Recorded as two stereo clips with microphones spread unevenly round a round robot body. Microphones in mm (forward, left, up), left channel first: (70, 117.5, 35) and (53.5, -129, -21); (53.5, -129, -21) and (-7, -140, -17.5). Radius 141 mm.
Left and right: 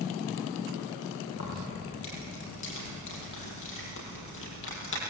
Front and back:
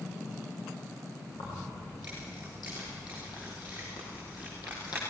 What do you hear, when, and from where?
1.3 s keys jangling: 50° left, 8 m